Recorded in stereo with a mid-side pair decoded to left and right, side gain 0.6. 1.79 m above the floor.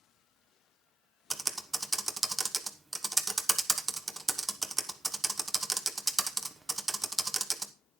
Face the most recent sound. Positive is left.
turn(degrees=-20)